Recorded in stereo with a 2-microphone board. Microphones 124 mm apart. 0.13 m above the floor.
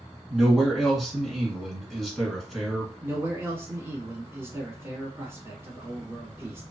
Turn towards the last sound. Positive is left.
turn(degrees=-20)  # may be behind; listen again after turning